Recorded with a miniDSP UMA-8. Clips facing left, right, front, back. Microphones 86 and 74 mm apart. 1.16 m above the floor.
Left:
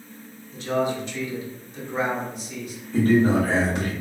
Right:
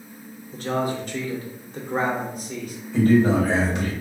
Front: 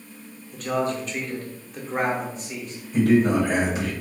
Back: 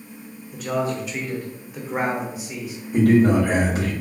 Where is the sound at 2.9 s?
145° left, 1.5 m.